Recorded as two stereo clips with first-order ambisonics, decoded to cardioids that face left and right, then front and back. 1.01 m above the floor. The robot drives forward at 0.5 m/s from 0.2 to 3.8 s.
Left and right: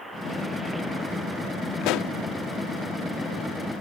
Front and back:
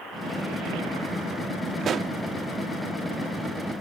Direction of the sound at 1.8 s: 115° left.